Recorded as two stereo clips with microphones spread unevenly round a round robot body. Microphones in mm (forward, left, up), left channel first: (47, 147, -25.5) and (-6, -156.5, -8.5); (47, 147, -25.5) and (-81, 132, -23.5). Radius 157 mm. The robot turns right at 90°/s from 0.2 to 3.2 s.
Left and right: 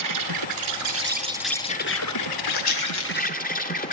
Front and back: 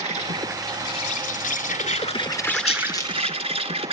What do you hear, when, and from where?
0.0 s an insect: 125° right, 2.5 m; by 3.9 s 145° left, 2.5 m
2.5 s a rattle: 30° left, 4 m; by 3.4 s 90° left, 4 m